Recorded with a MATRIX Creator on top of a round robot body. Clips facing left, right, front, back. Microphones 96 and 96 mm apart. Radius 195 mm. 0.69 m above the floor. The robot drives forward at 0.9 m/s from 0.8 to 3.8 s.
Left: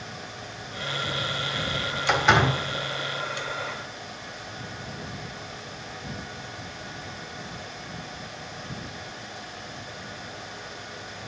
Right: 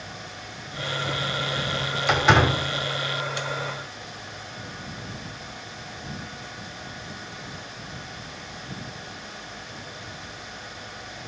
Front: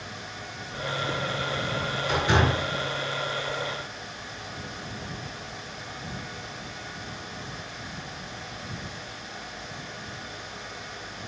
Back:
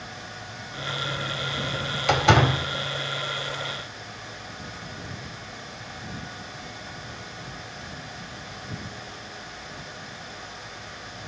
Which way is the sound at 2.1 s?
175° right.